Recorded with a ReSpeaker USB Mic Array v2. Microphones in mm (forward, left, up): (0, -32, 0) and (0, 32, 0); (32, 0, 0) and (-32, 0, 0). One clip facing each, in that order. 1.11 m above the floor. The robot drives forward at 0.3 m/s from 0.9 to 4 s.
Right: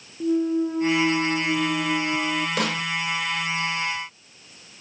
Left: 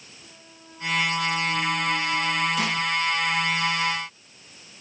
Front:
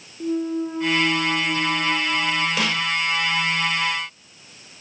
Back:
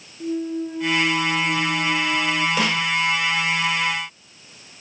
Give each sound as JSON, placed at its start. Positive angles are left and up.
{"t": 0.2, "sound": "a clunk", "azimuth_deg": -60, "distance_m": 0.6}
{"t": 2.6, "sound": "a snare drum", "azimuth_deg": -90, "distance_m": 2.5}